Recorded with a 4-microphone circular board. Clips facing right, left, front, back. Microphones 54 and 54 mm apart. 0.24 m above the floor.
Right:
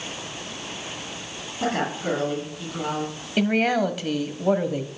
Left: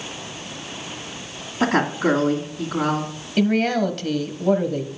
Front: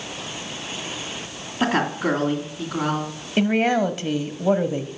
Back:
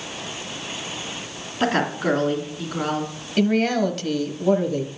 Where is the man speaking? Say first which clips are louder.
Left 2 dB, even; 25° right, 1.0 m.